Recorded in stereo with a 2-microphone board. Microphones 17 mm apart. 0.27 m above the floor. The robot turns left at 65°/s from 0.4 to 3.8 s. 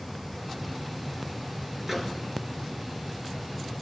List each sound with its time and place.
1.9 s a microwave: 15° right (ahead or behind), 3 m; by 2.2 s 5° left (ahead or behind), 3 m